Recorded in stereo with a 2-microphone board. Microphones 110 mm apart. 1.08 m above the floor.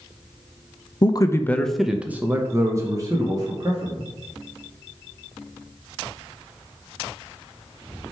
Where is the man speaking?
45° left (ahead or behind), 0.6 m; by 4.1 s 40° right (ahead or behind), 1.9 m.